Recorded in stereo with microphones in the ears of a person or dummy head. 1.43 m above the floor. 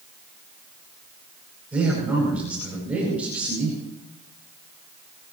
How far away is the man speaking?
About 9.5 m.